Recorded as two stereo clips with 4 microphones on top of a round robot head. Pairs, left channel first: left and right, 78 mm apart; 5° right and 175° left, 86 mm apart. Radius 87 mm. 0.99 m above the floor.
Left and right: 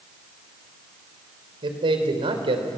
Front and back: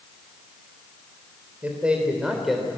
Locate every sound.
1.6 s a man speaking: 105° right, 3.5 m; by 2.7 s 90° right, 3 m